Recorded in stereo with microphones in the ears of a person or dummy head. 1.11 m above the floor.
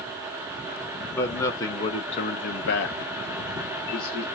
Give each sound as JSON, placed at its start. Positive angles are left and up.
{"t": 1.1, "sound": "a man speaking", "side_deg": 10, "distance_m": 1.0}